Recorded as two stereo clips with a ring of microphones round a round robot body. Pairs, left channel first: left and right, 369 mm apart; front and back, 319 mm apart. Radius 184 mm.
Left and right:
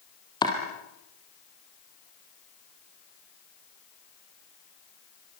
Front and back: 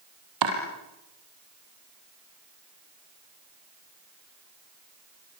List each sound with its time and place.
0.4 s chopping: 170° left, 5 m